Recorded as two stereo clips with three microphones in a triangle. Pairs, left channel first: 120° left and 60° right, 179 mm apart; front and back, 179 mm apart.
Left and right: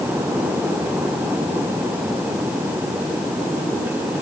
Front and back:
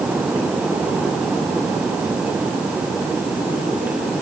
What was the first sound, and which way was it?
Only background noise.